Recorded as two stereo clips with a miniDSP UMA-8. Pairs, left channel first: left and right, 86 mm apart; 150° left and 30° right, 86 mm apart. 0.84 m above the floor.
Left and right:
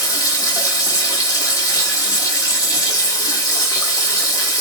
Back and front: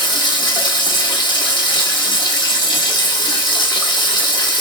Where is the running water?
130° left, 1.1 m.